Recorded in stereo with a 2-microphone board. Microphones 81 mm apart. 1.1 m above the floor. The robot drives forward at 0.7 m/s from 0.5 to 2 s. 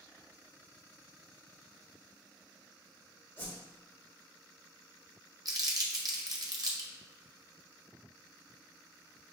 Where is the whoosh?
35° left (ahead or behind), 1.7 m.